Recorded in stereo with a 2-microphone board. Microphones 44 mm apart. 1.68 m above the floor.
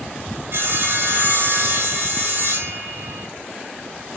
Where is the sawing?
55° right (ahead or behind), 3.5 m.